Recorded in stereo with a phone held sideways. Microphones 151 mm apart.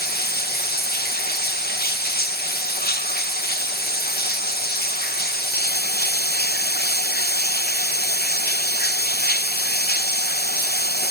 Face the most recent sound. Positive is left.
turn(degrees=80)